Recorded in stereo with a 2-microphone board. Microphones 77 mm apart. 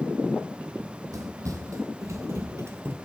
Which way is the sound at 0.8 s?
50° right (ahead or behind).